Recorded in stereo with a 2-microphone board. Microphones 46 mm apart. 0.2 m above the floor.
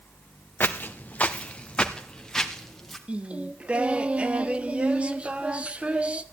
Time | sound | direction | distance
0.6 | footsteps | 45° left (ahead or behind) | 1.3 m
3.1 | singing | 25° right (ahead or behind) | 0.7 m